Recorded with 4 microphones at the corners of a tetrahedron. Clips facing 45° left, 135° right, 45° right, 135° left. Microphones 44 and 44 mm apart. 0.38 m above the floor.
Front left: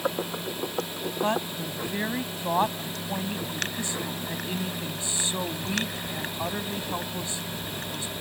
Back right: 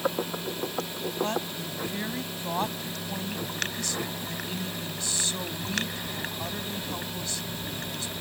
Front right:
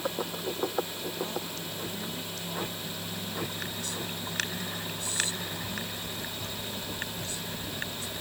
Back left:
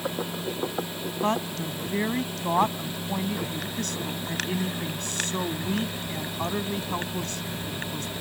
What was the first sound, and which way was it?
A woman speaking, 110° left.